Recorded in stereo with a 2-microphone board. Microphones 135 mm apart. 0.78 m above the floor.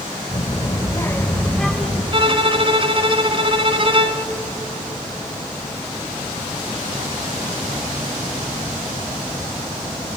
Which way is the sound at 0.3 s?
40° left (ahead or behind).